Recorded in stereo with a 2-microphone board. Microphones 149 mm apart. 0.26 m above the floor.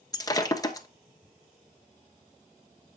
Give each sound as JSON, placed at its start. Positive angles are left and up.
{"t": 0.1, "sound": "breaking glass", "side_deg": 25, "distance_m": 1.2}